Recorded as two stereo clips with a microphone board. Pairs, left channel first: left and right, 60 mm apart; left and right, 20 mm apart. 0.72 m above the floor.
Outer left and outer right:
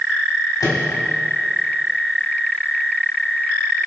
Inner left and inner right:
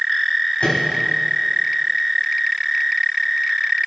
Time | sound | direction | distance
0.6 | a microwave | 80° left | 3.5 m